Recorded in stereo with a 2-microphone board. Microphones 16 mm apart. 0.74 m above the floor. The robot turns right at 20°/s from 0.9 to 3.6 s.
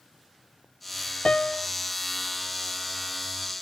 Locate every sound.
1.2 s a piano: 60° left (ahead or behind); by 1.7 s 50° left (ahead or behind)